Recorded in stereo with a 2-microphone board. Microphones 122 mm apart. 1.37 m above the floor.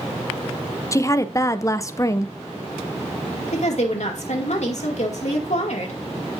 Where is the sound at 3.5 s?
70° left (ahead or behind), 2.5 m.